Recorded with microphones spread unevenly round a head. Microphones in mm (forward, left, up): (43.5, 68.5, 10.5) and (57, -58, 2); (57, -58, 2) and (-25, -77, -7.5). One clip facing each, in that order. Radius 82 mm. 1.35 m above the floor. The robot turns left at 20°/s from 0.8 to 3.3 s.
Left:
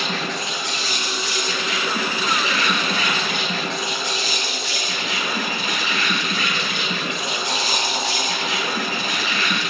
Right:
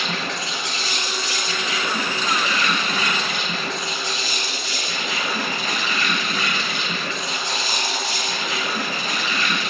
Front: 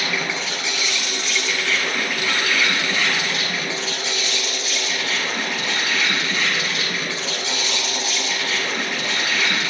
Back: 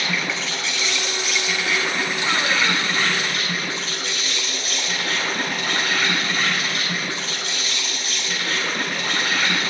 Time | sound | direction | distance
0.0 | an insect | 70° right | 7.5 m